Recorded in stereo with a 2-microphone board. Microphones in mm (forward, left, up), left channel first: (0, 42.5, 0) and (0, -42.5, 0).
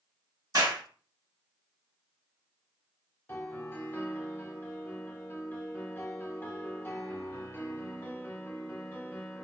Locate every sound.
0.5 s a clap: 50° right (ahead or behind), 1.7 m
3.3 s a piano: 25° left (ahead or behind), 0.8 m